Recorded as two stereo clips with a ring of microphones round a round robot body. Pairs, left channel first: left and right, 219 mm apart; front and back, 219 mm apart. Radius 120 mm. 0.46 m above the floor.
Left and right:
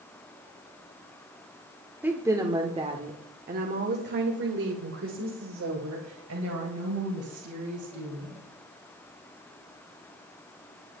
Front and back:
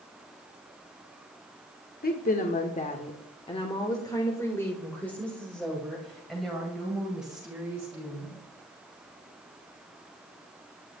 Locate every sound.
2.0 s a woman speaking: 10° right, 1.5 m; by 8.4 s 95° right, 4 m